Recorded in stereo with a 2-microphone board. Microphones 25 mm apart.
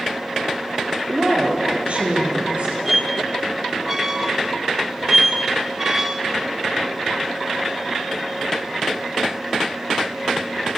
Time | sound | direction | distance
1.1 | a woman speaking | 55° right (ahead or behind) | 2.5 m
2.9 | a squeak | 15° right (ahead or behind) | 0.9 m